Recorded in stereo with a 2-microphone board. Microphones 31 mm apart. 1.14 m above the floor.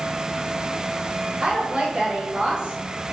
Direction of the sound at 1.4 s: 35° right (ahead or behind).